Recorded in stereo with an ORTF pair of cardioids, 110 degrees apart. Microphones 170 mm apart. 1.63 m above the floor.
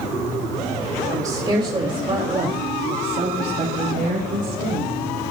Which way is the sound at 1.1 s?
20° right.